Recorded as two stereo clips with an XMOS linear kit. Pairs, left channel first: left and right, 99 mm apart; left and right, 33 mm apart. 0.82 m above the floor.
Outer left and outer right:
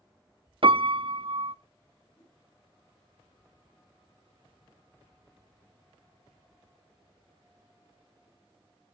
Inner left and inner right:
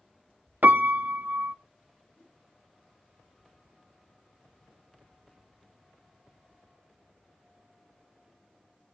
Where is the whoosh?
80° left, 7 m.